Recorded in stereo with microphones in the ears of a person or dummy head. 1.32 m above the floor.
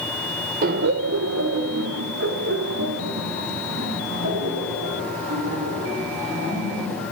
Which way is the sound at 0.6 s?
50° right (ahead or behind).